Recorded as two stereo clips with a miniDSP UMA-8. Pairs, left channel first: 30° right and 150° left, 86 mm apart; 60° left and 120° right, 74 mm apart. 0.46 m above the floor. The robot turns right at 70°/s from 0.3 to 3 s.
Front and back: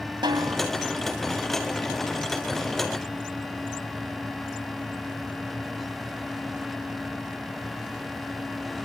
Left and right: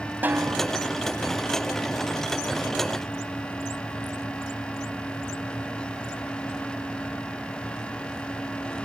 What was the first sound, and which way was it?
A snare drum, 175° left.